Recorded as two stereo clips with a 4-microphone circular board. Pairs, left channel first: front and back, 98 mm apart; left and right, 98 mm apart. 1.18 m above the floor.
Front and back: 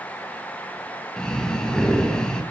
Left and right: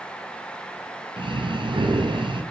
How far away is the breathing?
About 0.6 m.